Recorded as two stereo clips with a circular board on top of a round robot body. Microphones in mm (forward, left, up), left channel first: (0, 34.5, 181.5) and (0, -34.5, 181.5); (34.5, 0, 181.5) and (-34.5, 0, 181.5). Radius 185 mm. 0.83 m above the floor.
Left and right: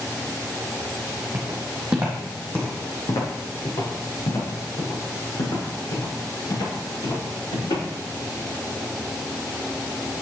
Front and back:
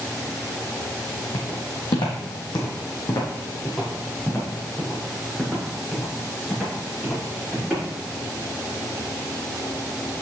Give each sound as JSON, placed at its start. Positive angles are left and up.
{"t": 1.3, "sound": "footsteps", "azimuth_deg": -35, "distance_m": 2.0}